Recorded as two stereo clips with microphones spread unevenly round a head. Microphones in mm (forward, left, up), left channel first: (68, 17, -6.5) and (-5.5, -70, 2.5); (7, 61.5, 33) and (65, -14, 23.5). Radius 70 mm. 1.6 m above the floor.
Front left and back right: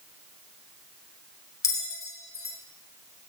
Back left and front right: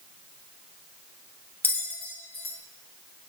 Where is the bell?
90° left, 0.8 m.